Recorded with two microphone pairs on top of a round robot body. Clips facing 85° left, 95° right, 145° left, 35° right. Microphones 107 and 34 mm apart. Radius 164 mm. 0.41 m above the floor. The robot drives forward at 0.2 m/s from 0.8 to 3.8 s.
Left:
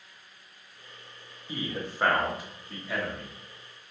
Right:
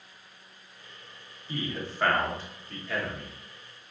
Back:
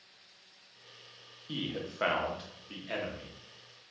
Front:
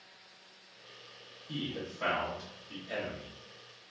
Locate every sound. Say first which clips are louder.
1.5 s a man speaking: even, back 1 dB; 160° left, 0.8 m; by 3.4 s 170° left, 1.0 m